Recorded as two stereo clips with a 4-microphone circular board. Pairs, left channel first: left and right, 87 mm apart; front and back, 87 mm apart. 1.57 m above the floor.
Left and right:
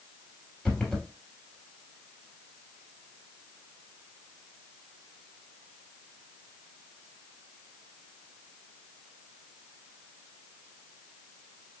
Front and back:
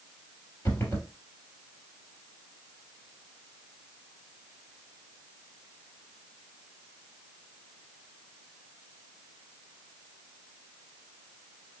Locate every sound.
0.7 s running footsteps: 15° left, 1.8 m